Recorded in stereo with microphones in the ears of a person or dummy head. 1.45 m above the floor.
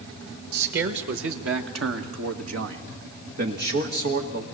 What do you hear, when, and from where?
0.5 s a man speaking: 55° right (ahead or behind), 1.8 m; by 4.4 s 45° right (ahead or behind), 2.5 m